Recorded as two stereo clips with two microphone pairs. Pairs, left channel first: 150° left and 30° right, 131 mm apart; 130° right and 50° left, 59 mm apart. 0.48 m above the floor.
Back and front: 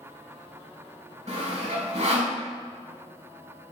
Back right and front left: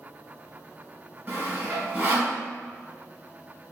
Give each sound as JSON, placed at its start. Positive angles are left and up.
{"t": 1.3, "sound": "sawing", "azimuth_deg": -15, "distance_m": 2.5}